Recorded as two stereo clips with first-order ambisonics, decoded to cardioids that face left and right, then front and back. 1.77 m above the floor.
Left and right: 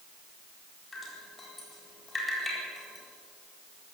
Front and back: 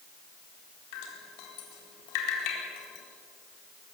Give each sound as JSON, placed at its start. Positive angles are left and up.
{"t": 0.9, "sound": "dripping", "azimuth_deg": 15, "distance_m": 4.0}